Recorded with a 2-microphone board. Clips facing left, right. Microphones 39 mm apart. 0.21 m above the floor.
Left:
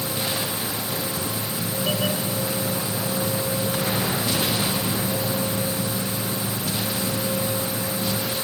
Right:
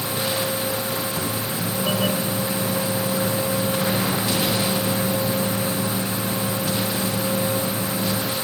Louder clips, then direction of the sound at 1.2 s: Right 2 dB; 75° right (ahead or behind).